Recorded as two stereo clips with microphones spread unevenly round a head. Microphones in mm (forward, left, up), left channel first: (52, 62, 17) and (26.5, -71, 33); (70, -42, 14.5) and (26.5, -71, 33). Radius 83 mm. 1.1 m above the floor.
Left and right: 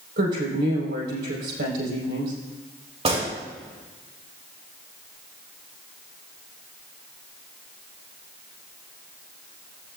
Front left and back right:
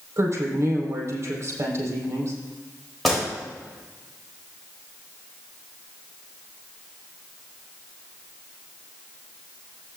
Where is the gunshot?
55° right, 3.5 m.